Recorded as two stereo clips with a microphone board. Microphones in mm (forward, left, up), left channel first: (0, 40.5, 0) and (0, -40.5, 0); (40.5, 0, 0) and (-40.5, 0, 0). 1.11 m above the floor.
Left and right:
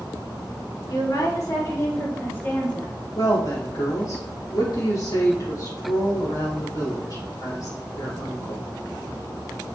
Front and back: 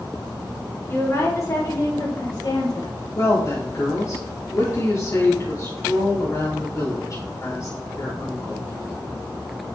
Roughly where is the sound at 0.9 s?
Ahead left.